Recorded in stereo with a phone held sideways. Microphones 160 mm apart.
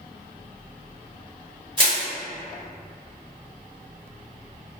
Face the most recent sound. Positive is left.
turn(degrees=-35)  # may be behind; listen again after turning